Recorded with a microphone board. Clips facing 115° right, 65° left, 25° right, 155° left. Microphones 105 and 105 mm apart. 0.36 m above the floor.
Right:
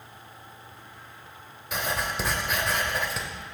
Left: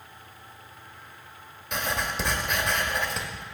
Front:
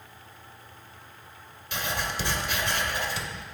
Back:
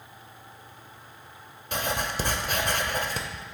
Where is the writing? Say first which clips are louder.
Even, back 2 dB; 160° left, 0.6 m.